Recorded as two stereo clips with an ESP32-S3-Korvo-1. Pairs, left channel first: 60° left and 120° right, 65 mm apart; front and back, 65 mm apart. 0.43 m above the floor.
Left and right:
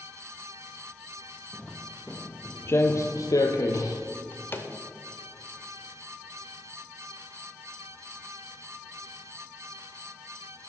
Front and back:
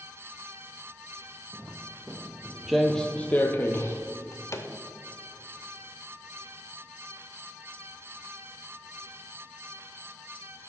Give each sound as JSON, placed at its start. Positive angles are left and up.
{"t": 1.5, "sound": "footsteps", "azimuth_deg": 150, "distance_m": 0.9}
{"t": 4.1, "sound": "a drawer", "azimuth_deg": 15, "distance_m": 0.7}